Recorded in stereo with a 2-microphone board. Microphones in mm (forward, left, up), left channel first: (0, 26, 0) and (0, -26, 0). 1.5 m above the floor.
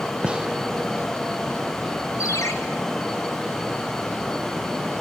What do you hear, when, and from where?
0.2 s a gunshot: 20° right (ahead or behind), 0.7 m
2.2 s a ringtone: 80° left, 4 m